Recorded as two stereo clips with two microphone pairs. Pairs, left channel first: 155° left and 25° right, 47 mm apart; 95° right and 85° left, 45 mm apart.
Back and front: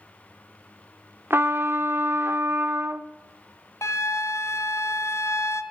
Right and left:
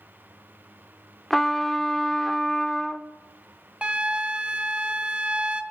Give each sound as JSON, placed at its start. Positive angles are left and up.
{"t": 1.3, "sound": "a trumpet", "azimuth_deg": -15, "distance_m": 0.7}
{"t": 3.8, "sound": "a flute", "azimuth_deg": 150, "distance_m": 0.6}